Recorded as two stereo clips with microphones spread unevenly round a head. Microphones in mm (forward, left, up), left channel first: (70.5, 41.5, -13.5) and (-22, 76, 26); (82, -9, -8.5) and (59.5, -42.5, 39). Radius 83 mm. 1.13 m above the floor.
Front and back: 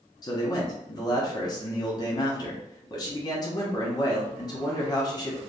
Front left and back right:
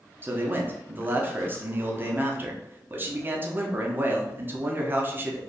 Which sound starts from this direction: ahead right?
A man speaking, at 0.2 s.